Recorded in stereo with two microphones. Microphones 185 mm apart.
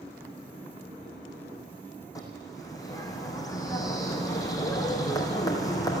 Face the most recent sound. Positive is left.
turn(degrees=20)  # may be behind; listen again after turning